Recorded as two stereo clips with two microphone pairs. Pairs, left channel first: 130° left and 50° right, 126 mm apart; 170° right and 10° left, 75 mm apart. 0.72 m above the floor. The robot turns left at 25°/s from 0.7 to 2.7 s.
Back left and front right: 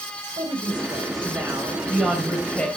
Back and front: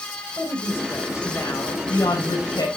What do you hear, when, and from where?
0.4 s a woman speaking: 105° right, 3.5 m; by 2.7 s 155° right, 3.5 m